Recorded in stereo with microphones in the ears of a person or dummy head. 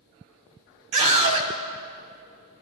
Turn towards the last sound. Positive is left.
turn(degrees=-40)  # may be behind; listen again after turning